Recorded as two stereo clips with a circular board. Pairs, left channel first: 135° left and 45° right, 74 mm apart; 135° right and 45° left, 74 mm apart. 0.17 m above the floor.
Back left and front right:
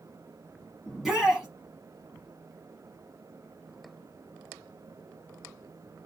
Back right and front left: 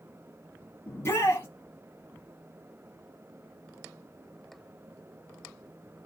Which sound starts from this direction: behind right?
A shout, at 0.9 s.